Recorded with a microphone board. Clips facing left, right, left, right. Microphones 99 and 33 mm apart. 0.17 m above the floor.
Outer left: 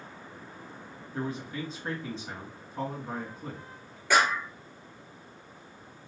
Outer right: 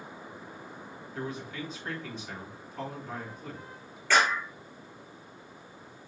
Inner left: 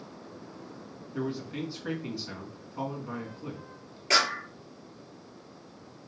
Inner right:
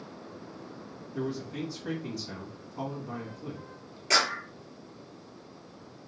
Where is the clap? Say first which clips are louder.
Outer left 1 dB, inner left 1 dB; 15° left (ahead or behind), 2.5 m.